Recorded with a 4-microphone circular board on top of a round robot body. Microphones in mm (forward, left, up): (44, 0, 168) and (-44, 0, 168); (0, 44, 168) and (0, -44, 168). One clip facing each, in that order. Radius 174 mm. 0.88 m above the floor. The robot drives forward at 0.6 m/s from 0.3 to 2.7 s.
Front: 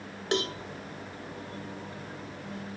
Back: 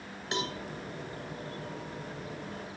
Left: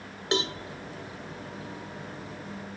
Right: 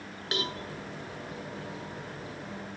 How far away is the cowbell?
About 1.5 m.